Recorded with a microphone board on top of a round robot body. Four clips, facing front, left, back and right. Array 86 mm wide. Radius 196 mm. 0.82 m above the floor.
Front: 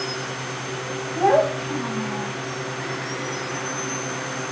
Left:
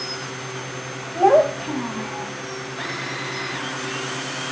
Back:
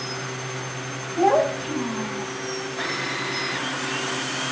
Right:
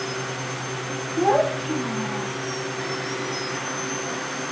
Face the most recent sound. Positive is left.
turn(degrees=80)